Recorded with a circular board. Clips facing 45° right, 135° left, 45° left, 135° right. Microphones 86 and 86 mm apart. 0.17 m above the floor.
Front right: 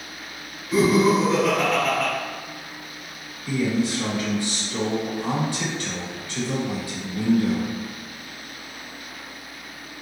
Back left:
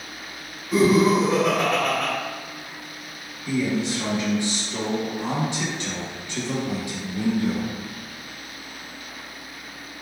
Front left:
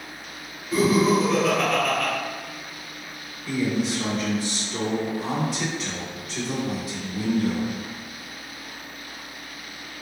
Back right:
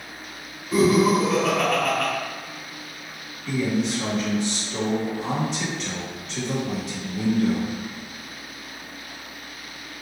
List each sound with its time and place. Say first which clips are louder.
0.7 s laughter: even, back right 1 dB; 165° right, 1.3 m
3.5 s a man speaking: front right 1 dB, even; 120° left, 1.2 m